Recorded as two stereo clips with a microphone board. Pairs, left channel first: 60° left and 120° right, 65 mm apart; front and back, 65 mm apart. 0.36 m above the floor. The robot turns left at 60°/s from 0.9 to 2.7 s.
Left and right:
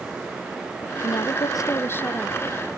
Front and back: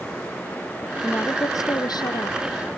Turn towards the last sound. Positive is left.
turn(degrees=-40)